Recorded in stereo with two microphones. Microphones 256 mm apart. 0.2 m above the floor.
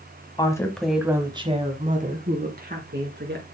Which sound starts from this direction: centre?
A woman speaking, at 0.4 s.